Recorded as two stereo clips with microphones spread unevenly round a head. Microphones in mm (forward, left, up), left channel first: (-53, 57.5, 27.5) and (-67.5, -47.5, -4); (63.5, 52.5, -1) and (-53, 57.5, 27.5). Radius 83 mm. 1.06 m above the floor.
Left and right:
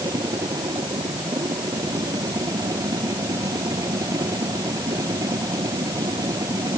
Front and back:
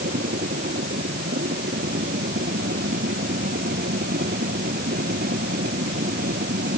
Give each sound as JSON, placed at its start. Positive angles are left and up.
{"t": 0.0, "sound": "a machine running", "azimuth_deg": -155}